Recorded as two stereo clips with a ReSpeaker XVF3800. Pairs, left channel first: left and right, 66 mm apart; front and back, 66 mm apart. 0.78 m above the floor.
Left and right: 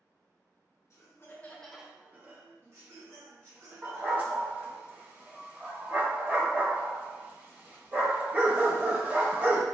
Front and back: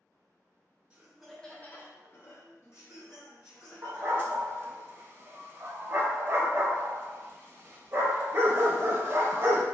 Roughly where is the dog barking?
Behind right.